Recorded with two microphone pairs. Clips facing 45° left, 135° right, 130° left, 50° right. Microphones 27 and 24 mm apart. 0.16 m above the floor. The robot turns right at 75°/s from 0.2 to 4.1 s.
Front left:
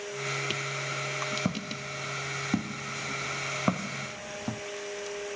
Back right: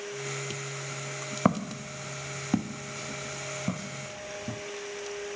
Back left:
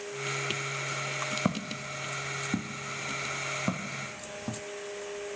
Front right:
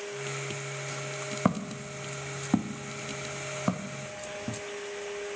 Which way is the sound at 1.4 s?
125° right.